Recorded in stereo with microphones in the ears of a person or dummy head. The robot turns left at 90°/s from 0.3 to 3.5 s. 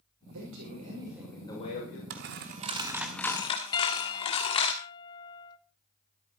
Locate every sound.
0.3 s a man speaking: 100° right, 6 m; by 2.0 s 110° left, 6 m
2.1 s a dropped coin: 50° right (ahead or behind), 1.2 m; by 4.7 s 30° left (ahead or behind), 1.2 m
3.7 s a piano: 20° left (ahead or behind), 1.2 m